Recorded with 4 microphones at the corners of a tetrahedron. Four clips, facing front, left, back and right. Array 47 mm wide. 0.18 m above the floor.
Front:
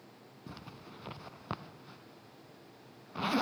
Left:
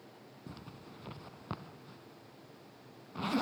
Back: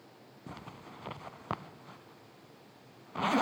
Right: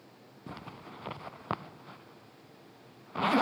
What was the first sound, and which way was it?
A zipper, 115° right.